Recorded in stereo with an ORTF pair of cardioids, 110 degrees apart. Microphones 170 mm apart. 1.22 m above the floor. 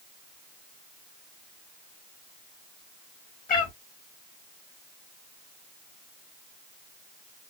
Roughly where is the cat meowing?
Ahead left.